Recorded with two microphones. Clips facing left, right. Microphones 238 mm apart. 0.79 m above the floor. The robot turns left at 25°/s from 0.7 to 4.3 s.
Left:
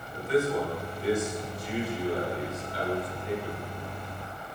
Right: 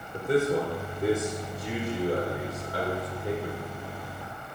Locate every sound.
0.1 s a man speaking: 50° right (ahead or behind), 3.5 m